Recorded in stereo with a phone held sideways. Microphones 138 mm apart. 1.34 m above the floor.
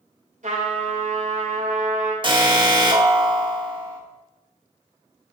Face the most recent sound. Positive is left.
turn(degrees=-35)  # may be behind; listen again after turning